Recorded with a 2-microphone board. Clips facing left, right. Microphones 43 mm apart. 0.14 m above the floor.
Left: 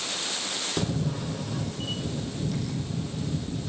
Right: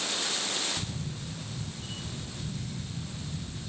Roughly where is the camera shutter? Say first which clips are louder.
Left 9 dB; left.